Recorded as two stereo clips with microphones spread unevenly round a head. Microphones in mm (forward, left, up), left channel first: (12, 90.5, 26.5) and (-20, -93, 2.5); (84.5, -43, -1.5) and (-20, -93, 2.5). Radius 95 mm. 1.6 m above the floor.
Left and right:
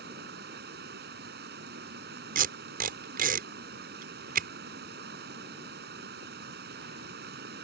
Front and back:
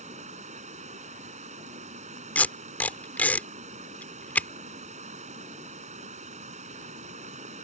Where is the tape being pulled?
50° right.